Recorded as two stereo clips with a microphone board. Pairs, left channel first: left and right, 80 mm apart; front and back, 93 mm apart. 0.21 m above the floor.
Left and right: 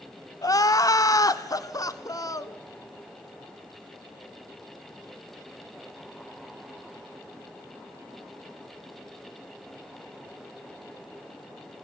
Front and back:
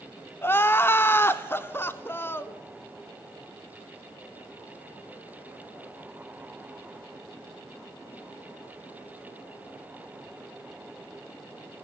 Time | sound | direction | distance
0.4 | crying | 60° left | 0.8 m